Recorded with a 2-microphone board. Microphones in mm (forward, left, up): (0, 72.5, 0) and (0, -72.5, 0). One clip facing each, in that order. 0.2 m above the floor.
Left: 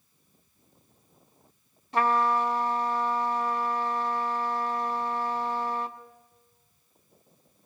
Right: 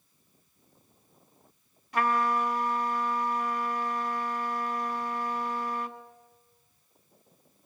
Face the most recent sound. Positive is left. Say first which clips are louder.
# left 3 dB
turn(degrees=30)  # may be behind; listen again after turning